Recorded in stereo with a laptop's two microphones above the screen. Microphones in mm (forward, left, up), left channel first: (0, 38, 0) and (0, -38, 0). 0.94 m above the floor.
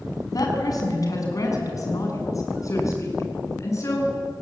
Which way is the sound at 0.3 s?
55° left (ahead or behind).